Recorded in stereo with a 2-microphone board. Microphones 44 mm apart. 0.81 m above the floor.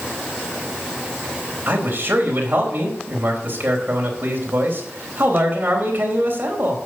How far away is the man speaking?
About 4 m.